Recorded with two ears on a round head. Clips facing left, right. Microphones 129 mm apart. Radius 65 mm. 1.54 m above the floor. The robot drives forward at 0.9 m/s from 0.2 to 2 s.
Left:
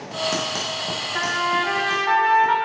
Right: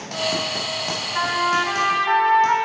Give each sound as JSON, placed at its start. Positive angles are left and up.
{"t": 1.1, "sound": "a trumpet", "side_deg": 45, "distance_m": 1.5}